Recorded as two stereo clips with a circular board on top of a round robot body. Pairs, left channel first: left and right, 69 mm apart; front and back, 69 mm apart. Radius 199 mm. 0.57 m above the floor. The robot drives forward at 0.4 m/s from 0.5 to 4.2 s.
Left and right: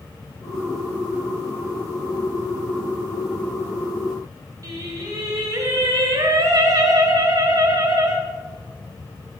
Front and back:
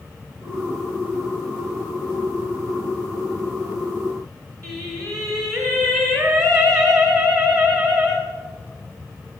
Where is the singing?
140° right, 1.2 m.